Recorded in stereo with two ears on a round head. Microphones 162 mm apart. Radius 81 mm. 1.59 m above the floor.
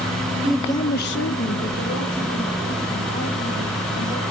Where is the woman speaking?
5° right (ahead or behind), 0.9 m; by 4.2 s 55° left (ahead or behind), 5 m.